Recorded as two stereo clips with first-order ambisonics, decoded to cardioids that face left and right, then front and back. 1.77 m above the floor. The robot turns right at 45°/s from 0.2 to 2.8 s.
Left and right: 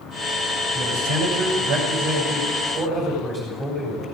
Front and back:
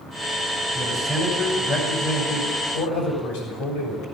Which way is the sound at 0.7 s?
95° right.